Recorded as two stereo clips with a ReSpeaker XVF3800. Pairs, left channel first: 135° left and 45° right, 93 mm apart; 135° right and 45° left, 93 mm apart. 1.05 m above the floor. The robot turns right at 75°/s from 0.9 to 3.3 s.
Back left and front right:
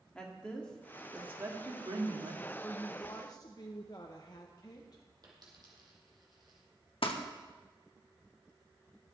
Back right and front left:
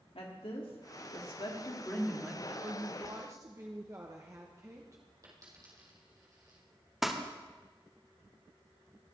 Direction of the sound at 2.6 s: 45° left.